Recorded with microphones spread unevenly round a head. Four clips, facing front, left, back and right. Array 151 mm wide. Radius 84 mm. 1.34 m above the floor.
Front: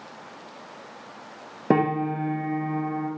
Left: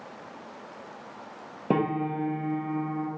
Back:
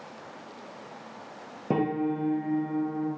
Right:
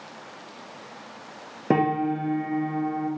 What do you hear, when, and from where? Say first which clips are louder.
1.7 s a piano: right 4 dB, front 4 dB; 35° right, 0.5 m